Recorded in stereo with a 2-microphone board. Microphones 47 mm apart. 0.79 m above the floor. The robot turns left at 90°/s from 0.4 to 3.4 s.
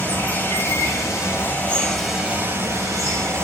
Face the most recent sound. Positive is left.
turn(degrees=-120)